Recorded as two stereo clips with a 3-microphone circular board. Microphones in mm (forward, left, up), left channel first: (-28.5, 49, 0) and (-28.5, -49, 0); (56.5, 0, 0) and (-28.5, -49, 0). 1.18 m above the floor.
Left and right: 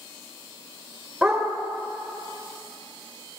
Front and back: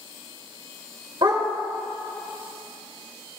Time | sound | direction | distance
1.2 | a dog barking | 170° right | 1.4 m